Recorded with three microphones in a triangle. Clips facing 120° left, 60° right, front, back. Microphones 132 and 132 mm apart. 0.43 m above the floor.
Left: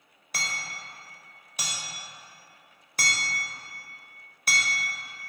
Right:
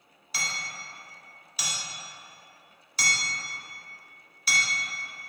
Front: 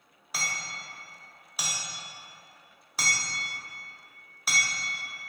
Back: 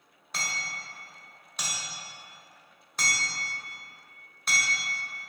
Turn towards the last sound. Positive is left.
turn(degrees=85)